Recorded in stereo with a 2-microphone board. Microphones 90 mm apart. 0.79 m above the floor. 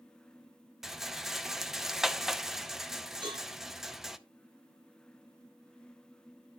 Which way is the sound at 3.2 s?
55° right (ahead or behind).